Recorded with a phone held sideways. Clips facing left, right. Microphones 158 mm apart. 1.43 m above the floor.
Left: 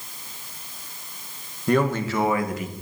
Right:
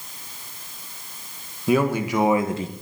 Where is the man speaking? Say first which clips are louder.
Right 1 dB; 5° right (ahead or behind), 1.8 m; by 2.7 s 35° right (ahead or behind), 1.3 m.